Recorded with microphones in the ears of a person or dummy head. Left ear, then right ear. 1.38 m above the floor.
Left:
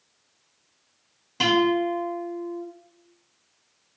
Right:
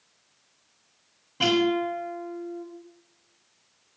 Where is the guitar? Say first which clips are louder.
Left 2 dB; 65° left (ahead or behind), 4 m.